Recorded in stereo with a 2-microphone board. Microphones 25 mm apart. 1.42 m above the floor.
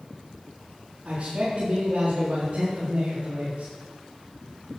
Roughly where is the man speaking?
Right.